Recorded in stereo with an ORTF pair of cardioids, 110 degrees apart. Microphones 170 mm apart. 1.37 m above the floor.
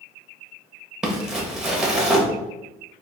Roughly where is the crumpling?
Ahead.